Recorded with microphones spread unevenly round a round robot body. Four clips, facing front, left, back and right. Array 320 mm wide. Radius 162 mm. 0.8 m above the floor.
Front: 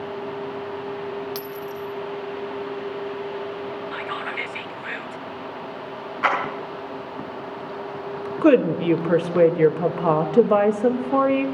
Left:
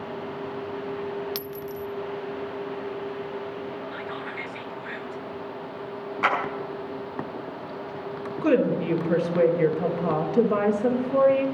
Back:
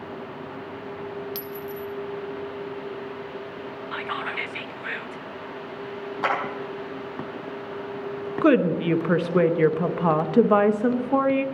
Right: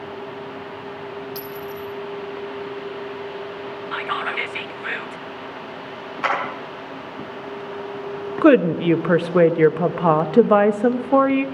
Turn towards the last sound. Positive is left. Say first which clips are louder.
# right 8 dB, front 3 dB
turn(degrees=-100)